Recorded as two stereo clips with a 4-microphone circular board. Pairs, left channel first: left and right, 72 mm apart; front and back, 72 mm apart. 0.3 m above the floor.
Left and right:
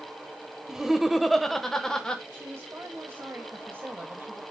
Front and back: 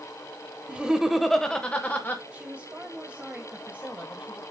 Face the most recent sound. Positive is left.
turn(degrees=-120)